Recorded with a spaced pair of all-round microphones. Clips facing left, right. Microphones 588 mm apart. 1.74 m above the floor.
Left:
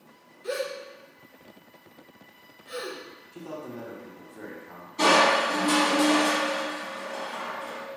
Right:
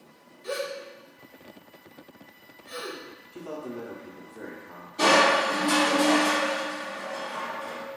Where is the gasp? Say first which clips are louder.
Left 1 dB; 25° right (ahead or behind), 0.7 m.